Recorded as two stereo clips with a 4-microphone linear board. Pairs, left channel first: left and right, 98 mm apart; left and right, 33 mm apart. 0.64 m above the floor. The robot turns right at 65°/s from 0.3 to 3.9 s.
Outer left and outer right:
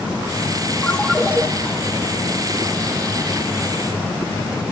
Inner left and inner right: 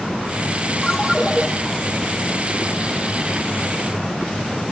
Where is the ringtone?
165° left, 0.9 m; by 1.5 s 155° right, 0.9 m.